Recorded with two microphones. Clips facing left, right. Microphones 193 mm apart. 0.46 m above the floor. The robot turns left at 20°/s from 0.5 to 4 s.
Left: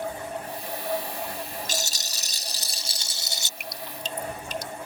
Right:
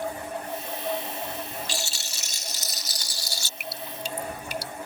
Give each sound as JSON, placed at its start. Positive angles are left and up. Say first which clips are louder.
{"t": 1.7, "sound": "a rattle", "louder": "left 1 dB", "azimuth_deg": 60}
{"t": 3.6, "sound": "dripping", "louder": "right 2 dB", "side_deg": -5}